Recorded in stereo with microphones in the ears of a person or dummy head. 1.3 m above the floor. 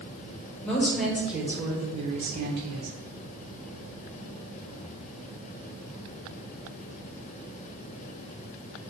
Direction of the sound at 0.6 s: 5° left (ahead or behind).